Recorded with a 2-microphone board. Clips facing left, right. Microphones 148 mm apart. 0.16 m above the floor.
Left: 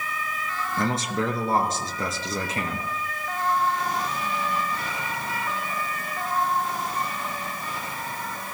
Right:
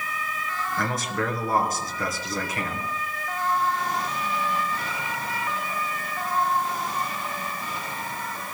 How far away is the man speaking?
About 2.5 m.